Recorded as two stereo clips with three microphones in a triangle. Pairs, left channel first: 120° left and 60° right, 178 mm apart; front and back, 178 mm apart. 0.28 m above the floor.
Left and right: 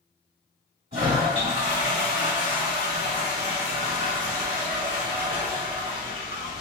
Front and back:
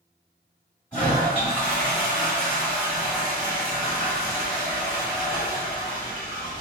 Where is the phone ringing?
No phone ringing in this recording.